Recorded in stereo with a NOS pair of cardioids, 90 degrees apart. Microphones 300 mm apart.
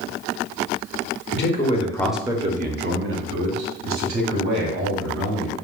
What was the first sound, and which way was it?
A man speaking, 40° left.